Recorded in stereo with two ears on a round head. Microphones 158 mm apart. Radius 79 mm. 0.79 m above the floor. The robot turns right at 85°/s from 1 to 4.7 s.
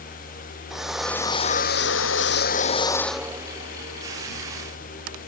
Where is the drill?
Centre (ahead or behind); by 5.3 s 50° right (ahead or behind).